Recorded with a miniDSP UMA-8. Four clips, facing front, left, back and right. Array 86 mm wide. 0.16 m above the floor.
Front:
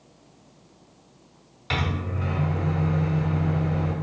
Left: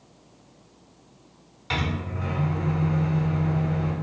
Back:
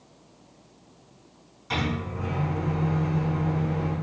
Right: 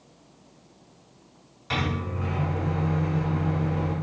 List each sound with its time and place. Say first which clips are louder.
1.7 s a microwave: even, even; 20° left, 1.0 m